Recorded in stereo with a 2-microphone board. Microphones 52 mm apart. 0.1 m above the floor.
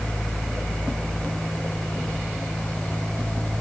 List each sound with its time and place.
Only background noise.